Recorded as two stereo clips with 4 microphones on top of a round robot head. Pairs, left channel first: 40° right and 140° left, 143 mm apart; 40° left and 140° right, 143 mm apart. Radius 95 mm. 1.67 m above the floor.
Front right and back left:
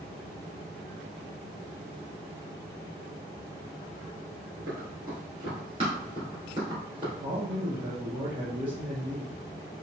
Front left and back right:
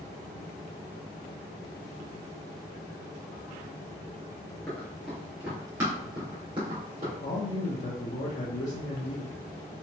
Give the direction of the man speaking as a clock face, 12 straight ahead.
9 o'clock.